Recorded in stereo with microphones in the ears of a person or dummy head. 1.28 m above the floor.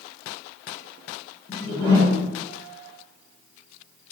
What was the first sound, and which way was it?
A whoosh, 25° left (ahead or behind).